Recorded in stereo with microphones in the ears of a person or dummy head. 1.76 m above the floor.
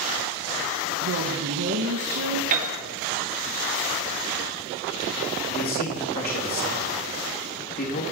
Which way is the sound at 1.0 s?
60° right (ahead or behind).